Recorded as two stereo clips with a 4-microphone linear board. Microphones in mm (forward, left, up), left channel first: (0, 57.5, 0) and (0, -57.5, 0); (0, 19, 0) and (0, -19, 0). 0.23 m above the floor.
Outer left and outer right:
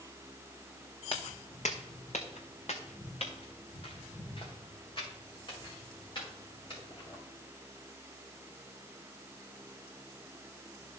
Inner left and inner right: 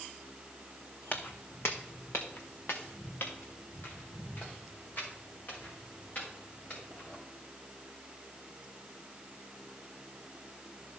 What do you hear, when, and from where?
1.1 s footsteps: 50° left (ahead or behind), 1.0 m; by 7.2 s 40° left (ahead or behind), 5.5 m